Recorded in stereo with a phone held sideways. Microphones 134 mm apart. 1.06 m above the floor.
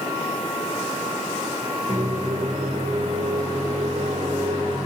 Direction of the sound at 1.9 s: 85° right.